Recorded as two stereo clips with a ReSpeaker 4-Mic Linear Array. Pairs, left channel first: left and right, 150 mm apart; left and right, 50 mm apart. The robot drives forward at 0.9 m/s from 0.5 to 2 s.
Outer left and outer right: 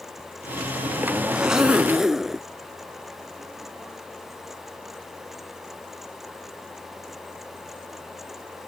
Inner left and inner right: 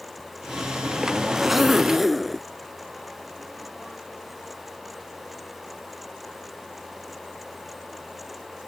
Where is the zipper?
5° right (ahead or behind).